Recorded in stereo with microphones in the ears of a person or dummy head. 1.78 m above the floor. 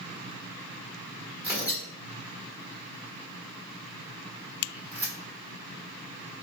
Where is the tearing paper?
15° right (ahead or behind), 1.3 m.